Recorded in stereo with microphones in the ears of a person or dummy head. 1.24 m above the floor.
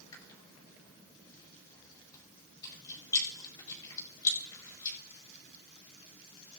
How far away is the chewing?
About 5.5 m.